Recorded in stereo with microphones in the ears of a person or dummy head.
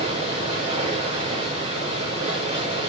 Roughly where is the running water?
Right.